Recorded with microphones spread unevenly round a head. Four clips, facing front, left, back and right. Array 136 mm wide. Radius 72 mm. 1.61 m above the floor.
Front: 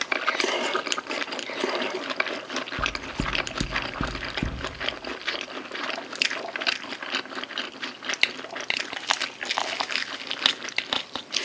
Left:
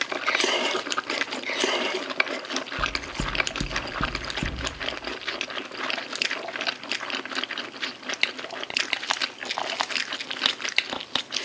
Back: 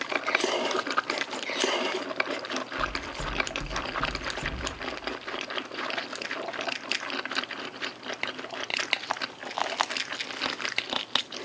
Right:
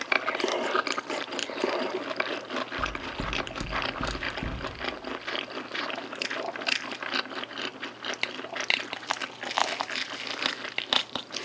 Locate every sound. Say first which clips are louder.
2.8 s knocking: left 2 dB, front 2 dB; 20° left, 0.5 m